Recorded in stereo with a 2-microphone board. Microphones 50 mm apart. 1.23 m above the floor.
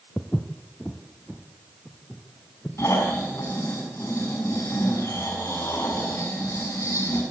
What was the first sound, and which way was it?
Footsteps, 25° left (ahead or behind).